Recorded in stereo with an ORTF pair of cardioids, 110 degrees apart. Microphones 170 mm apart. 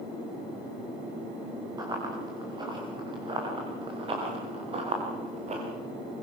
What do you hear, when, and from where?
1.8 s running footsteps: 20° right, 8 m; by 5.6 s 40° right, 7 m